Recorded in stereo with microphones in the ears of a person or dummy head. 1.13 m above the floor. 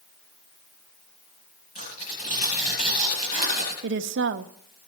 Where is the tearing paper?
45° left (ahead or behind), 8 m.